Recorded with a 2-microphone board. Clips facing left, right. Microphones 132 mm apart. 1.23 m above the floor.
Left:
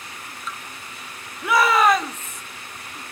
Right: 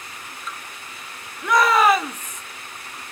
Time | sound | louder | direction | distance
1.4 | a shout | right 1 dB | 5° left (ahead or behind) | 3 m